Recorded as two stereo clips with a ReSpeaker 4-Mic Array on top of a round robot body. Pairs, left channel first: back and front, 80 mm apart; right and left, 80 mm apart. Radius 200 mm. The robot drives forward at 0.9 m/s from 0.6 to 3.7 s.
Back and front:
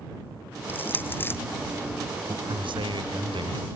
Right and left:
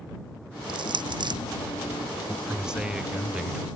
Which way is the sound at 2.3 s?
10° left.